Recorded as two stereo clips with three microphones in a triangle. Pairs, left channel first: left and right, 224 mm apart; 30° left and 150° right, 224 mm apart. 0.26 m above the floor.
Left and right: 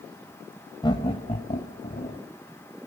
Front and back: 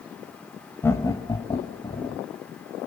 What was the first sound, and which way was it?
Laughter, 85° left.